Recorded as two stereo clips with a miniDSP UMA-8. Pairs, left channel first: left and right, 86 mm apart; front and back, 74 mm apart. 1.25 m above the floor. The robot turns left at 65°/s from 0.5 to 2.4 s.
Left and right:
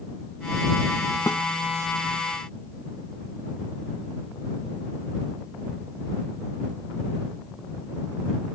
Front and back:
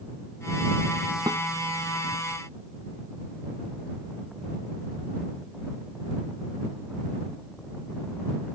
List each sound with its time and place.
1.3 s a snare drum: 150° left; by 1.4 s 135° left